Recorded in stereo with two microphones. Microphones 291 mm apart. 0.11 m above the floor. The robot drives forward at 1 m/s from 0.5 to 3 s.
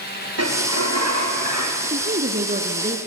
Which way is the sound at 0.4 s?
65° right (ahead or behind).